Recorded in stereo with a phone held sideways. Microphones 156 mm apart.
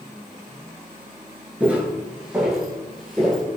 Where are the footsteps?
10° right (ahead or behind), 1.2 m; by 3.4 s centre (ahead or behind), 1.8 m.